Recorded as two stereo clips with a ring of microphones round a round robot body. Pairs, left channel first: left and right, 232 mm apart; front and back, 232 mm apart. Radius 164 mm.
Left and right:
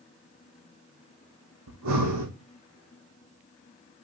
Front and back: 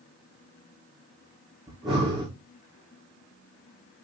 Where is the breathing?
90° right, 3 m.